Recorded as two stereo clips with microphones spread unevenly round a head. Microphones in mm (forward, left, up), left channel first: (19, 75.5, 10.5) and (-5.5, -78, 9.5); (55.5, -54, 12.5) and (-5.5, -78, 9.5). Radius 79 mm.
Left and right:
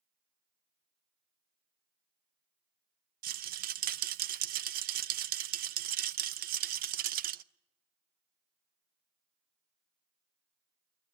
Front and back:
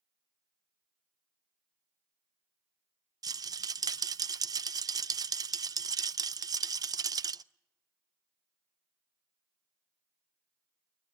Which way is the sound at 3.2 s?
135° right.